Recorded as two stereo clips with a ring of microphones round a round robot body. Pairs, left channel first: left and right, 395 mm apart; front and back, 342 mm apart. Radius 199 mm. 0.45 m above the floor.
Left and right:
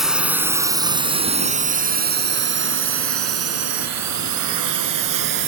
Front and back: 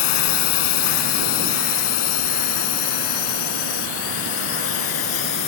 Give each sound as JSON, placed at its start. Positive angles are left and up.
{"t": 0.0, "sound": "a drone", "azimuth_deg": 0}